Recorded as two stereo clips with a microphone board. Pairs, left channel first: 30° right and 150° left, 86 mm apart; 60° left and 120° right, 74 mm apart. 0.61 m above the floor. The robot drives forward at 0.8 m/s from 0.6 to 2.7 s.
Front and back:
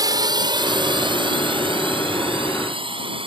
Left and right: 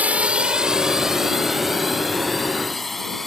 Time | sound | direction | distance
0.0 | a drone | 175° left | ?